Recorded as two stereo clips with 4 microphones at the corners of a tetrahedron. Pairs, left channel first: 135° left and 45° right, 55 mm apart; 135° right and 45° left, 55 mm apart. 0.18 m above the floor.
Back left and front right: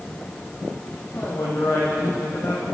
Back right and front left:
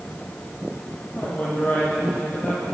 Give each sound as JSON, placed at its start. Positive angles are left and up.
{"t": 1.1, "sound": "a man speaking", "azimuth_deg": 165, "distance_m": 7.0}